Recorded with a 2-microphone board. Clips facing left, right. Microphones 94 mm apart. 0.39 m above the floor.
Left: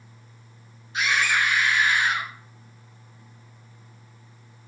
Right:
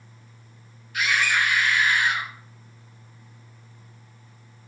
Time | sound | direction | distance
0.9 | a scream | 25° left (ahead or behind) | 4 m